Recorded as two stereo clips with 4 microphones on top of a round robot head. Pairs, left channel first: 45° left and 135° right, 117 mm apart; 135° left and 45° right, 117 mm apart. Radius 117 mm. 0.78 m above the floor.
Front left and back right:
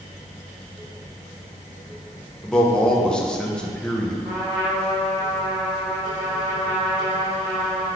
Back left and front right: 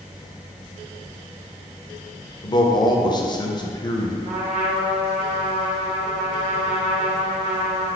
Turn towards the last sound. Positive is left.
turn(degrees=-75)